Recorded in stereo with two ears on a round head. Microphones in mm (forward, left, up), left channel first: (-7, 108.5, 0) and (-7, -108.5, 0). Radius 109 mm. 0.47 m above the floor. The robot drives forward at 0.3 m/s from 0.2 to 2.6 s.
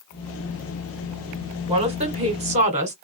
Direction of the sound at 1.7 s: 25° right (ahead or behind).